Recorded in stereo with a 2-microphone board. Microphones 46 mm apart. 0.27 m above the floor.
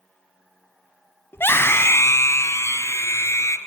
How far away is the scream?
About 1.8 m.